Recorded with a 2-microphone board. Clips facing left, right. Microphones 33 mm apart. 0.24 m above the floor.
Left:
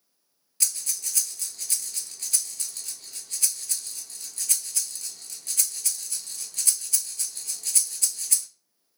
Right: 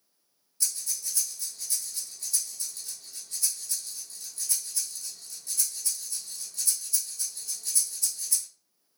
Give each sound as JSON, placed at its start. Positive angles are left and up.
{"t": 0.6, "sound": "breathing", "side_deg": 70, "distance_m": 0.9}